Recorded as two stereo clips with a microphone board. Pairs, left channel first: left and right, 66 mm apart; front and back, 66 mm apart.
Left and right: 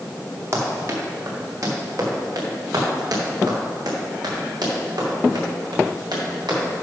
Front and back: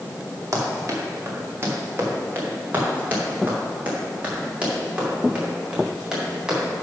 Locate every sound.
0.5 s running footsteps: 135° right, 3 m; by 6.6 s 105° right, 6 m